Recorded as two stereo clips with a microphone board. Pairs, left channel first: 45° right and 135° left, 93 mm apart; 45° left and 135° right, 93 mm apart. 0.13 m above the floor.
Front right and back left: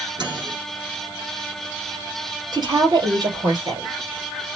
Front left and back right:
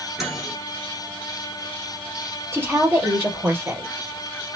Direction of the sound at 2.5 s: 165° left.